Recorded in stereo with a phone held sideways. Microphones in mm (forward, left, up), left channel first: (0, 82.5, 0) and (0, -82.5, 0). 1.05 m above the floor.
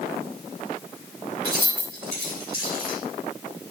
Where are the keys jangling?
65° right (ahead or behind), 4 m.